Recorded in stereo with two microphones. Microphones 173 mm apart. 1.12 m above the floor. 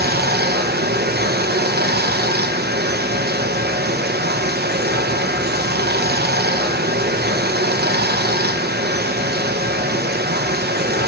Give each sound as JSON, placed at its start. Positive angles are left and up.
{"t": 0.0, "sound": "running water", "side_deg": -70, "distance_m": 0.8}